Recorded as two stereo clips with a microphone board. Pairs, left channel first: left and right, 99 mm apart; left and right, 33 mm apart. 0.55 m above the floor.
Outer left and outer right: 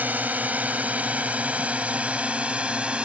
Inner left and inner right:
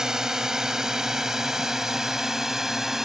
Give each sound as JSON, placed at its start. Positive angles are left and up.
{"t": 0.0, "sound": "a drone", "side_deg": -15}